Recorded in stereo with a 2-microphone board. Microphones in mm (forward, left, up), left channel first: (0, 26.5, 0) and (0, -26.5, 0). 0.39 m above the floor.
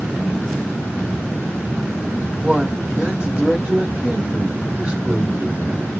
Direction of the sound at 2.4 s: 20° right (ahead or behind).